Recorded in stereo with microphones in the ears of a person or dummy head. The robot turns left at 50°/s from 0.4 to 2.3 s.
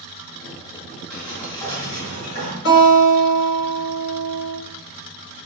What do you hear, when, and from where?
1.1 s a sliding door: 175° right, 1.8 m; by 2.5 s 125° left, 1.8 m
2.6 s a guitar: 55° left (ahead or behind), 1.9 m